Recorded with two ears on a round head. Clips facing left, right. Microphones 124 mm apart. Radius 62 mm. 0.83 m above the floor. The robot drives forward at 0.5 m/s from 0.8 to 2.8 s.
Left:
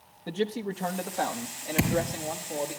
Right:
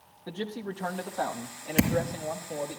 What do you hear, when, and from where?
0.3 s a man speaking: 15° left (ahead or behind), 1.0 m; by 2.8 s 10° left (ahead or behind), 1.8 m
1.8 s a thud: 45° right (ahead or behind), 4.5 m